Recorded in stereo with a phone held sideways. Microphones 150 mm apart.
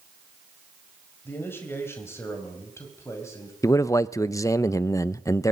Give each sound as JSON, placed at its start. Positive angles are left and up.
{"t": 1.2, "sound": "a man speaking", "side_deg": 15, "distance_m": 5.0}
{"t": 3.6, "sound": "a man speaking", "side_deg": 20, "distance_m": 0.7}